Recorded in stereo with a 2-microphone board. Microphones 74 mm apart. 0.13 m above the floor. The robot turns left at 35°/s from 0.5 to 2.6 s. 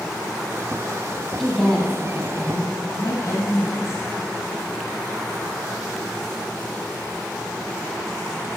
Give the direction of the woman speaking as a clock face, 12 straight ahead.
6 o'clock.